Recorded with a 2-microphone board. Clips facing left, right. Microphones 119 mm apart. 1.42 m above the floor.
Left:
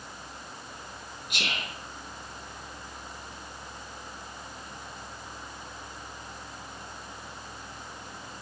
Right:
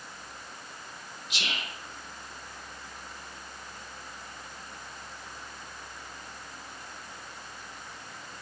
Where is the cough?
I don't hear a cough.